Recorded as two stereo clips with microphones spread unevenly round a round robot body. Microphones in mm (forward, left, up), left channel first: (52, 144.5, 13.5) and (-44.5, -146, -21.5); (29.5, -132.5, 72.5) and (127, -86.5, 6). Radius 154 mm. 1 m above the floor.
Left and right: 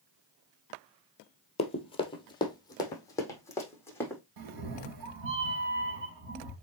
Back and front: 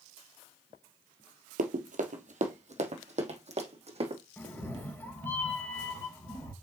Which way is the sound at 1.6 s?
10° left.